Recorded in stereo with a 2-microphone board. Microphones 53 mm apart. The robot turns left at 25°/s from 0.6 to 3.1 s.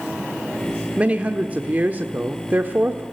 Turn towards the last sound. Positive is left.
turn(degrees=-100)